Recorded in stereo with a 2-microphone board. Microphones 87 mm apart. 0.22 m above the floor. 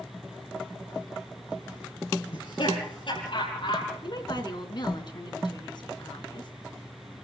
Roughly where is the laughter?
Left.